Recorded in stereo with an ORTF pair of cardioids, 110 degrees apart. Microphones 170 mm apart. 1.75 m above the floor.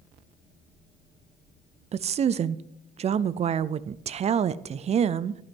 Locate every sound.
1.9 s a woman speaking: 40° right, 0.5 m